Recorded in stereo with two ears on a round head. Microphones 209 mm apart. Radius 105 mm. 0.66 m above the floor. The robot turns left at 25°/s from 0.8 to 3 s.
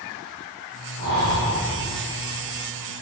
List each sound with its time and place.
1.0 s breathing: 70° right (ahead or behind), 6.5 m; by 1.6 s 85° right, 6.5 m